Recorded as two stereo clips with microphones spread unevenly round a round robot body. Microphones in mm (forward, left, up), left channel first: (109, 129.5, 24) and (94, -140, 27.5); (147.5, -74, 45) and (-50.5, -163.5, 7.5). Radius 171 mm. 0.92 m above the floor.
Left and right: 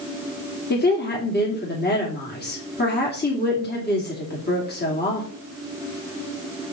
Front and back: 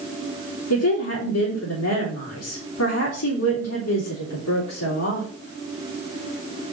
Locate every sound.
0.7 s a woman speaking: 35° left, 3 m